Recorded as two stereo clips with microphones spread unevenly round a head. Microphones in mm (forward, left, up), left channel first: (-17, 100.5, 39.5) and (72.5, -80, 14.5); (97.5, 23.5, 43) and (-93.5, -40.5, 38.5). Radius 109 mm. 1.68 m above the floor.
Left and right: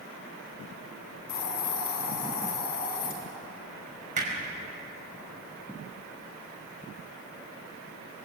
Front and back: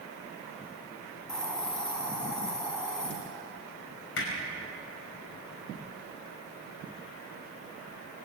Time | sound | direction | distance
1.3 | a hiss | 105° left | 5 m
4.2 | hammering | 10° right | 5.5 m